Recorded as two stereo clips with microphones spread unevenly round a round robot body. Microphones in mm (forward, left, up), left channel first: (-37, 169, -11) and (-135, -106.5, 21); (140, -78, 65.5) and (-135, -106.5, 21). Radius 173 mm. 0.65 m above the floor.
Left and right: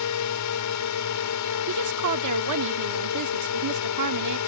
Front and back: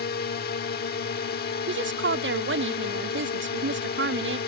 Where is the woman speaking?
135° right.